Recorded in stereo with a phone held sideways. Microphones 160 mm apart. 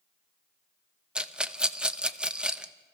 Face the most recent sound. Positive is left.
turn(degrees=-5)  # may be behind; listen again after turning